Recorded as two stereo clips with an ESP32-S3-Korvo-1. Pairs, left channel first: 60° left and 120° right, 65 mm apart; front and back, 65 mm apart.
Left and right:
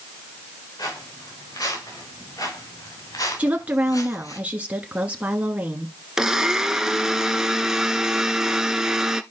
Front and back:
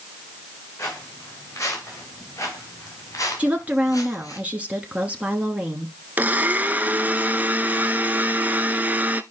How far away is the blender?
About 0.7 m.